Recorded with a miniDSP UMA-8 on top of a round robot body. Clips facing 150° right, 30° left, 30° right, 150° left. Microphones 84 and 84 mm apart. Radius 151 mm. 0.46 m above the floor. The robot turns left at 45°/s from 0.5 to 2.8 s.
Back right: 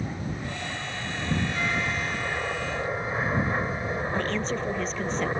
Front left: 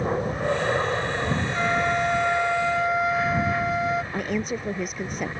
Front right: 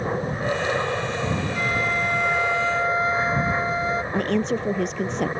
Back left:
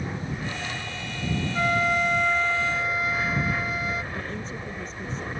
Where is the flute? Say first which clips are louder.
Front left 6 dB, back left 4 dB; 90° left; by 4.0 s 30° left.